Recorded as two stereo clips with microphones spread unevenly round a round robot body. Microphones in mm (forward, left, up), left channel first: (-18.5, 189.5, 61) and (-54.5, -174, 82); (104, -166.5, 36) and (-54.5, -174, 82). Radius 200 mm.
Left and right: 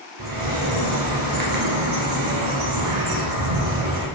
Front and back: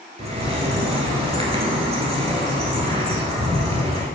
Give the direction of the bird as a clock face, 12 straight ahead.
4 o'clock.